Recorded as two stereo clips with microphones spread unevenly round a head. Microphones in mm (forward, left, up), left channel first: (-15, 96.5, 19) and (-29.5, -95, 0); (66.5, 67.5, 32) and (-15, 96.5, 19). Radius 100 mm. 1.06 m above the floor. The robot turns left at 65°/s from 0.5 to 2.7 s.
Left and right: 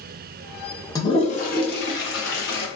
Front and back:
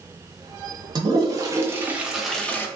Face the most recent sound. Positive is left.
turn(degrees=45)